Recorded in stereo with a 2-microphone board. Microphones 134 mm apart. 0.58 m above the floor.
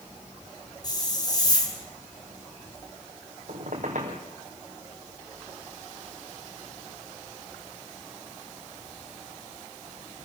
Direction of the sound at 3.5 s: 65° right (ahead or behind).